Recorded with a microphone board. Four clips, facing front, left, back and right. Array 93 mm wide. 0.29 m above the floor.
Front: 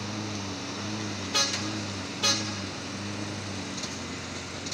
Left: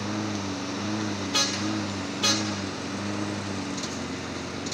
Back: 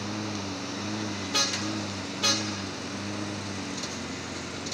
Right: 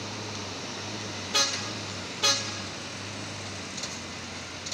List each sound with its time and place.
0.0 s a lawn mower: 100° left